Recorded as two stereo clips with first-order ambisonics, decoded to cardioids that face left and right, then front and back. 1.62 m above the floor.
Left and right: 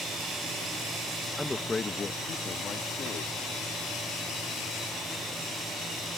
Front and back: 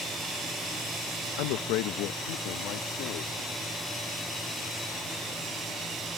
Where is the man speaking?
Straight ahead; by 3.4 s 30° left.